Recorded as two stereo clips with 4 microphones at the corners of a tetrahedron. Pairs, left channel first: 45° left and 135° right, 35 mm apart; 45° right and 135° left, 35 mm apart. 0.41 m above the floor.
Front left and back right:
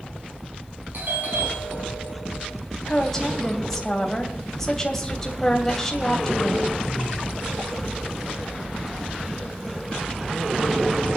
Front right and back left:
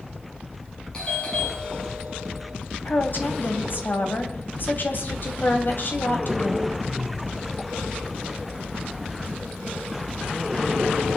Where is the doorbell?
110° right, 5 m.